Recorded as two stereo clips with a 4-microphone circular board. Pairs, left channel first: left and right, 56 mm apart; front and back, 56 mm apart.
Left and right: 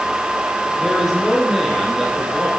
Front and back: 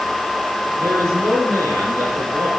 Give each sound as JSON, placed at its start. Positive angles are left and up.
{"t": 0.8, "sound": "a man speaking", "azimuth_deg": 180, "distance_m": 4.5}